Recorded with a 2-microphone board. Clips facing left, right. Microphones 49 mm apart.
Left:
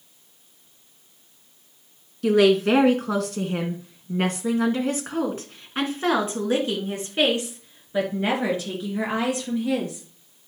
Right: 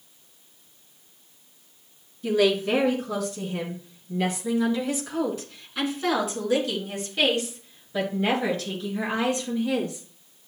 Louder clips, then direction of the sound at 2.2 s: Left 5 dB; 70° left (ahead or behind).